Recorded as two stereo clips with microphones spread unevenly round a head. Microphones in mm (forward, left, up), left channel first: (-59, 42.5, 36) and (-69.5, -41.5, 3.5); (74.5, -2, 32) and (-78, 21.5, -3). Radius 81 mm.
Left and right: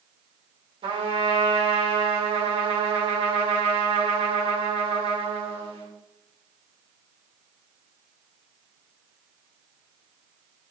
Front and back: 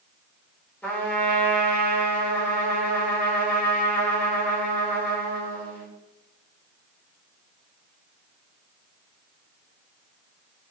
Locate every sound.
0.8 s a trumpet: 95° right, 3 m